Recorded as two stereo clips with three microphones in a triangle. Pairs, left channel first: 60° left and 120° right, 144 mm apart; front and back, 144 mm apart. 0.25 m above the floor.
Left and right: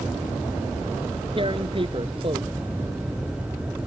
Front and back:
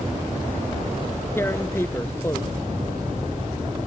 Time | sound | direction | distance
1.4 | tearing paper | 70° right | ?